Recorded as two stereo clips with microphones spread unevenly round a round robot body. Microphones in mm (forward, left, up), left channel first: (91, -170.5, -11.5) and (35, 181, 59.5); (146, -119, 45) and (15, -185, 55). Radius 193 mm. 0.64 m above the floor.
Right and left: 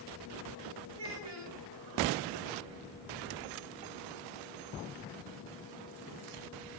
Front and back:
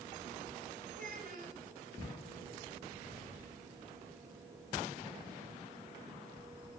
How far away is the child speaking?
About 3 m.